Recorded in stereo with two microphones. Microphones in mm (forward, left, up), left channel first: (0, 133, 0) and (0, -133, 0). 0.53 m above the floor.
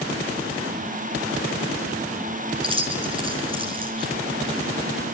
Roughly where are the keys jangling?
Centre.